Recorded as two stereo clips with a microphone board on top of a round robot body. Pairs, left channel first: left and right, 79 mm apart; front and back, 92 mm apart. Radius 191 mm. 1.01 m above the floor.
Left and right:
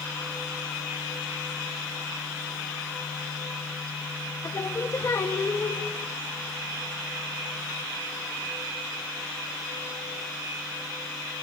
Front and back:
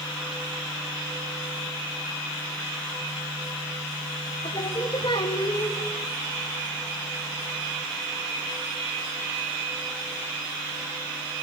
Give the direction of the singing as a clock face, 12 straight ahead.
11 o'clock.